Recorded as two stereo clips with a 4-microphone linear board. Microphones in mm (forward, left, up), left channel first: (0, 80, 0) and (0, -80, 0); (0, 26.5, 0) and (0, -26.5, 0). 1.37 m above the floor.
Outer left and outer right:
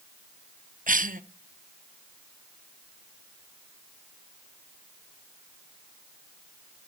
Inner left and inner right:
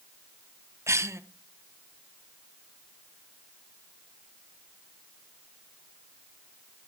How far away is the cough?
About 0.9 m.